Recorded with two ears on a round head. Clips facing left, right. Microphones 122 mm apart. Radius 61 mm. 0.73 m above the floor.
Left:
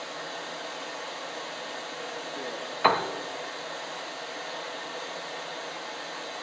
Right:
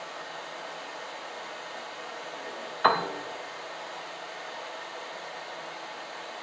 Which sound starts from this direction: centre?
A piano, at 2.8 s.